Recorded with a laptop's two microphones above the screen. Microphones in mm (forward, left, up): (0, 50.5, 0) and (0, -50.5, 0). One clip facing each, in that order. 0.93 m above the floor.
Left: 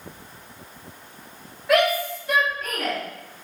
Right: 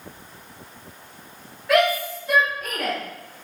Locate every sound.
1.7 s a shout: 10° left (ahead or behind), 2.5 m; by 3.0 s 5° right (ahead or behind), 2.5 m